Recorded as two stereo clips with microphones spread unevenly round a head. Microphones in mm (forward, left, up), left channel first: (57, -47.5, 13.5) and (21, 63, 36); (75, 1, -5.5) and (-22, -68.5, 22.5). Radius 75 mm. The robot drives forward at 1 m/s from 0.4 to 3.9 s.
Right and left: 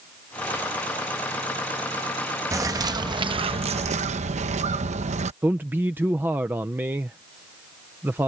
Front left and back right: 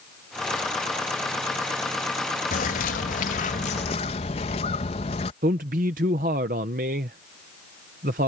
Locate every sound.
2.5 s a bird: 45° left; by 5.3 s 80° left
5.4 s a man speaking: 170° right